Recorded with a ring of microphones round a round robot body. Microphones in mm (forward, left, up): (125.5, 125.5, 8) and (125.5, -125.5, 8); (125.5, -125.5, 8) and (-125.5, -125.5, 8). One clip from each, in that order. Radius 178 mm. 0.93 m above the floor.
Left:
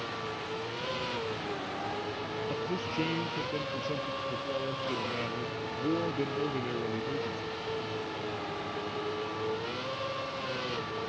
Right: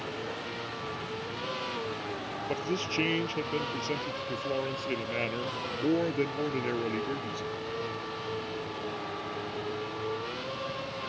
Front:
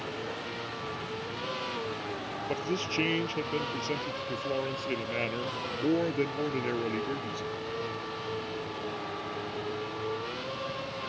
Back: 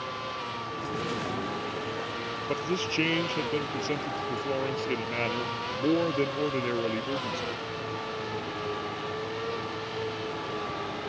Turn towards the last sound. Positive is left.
turn(degrees=-80)